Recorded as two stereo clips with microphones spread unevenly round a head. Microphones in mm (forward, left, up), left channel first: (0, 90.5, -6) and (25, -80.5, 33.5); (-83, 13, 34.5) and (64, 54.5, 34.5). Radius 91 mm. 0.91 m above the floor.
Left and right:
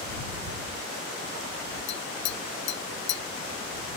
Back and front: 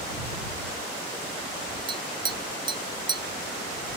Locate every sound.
1.9 s tapping: 75° left